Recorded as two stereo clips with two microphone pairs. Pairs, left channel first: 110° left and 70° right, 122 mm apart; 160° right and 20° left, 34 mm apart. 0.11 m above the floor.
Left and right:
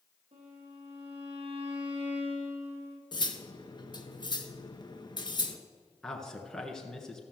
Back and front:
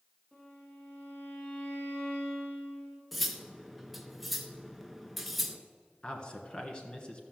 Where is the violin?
90° right, 5 m.